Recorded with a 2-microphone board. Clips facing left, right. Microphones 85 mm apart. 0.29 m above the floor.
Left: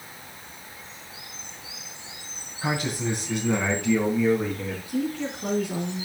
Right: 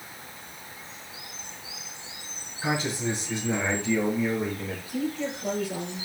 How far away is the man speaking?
About 3 m.